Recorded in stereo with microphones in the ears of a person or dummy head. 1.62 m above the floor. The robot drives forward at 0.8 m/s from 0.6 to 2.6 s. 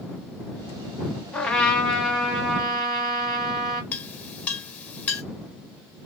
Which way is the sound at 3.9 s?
10° left (ahead or behind).